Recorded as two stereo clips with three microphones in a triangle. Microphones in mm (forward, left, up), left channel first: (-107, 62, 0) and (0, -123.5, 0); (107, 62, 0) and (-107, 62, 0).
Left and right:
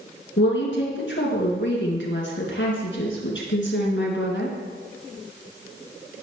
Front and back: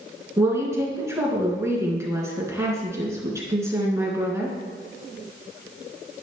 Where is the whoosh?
I don't hear a whoosh.